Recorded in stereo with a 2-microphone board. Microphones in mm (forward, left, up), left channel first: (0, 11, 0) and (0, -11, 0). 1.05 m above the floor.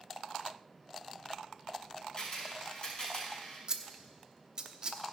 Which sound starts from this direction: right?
Scissors, at 3.7 s.